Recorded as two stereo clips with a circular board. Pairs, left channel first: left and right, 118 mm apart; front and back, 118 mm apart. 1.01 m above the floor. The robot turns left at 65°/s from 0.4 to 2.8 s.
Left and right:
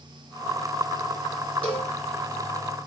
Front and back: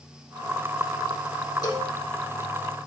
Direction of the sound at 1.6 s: 55° left.